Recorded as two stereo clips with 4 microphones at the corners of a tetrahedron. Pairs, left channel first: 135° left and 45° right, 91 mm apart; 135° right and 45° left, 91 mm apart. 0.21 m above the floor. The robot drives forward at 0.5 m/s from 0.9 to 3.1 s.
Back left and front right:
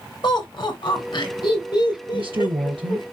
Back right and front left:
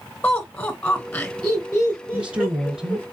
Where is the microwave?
No microwave in this recording.